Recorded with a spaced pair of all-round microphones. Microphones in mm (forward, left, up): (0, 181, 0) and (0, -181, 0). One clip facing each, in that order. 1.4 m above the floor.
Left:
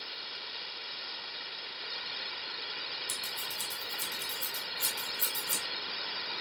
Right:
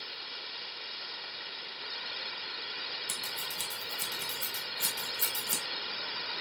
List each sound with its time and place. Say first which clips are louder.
3.1 s scissors: right 1 dB; 85° right, 1.3 m